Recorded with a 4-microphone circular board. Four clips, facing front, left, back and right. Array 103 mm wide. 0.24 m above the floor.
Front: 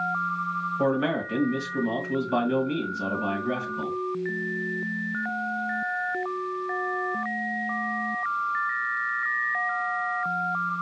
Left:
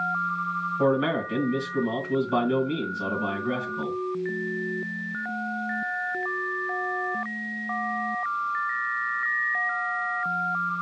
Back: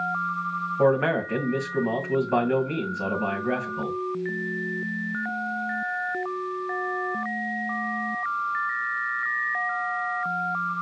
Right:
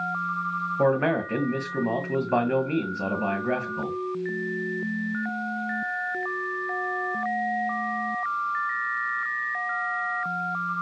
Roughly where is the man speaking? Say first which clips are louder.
Right 1 dB, back 4 dB; behind right.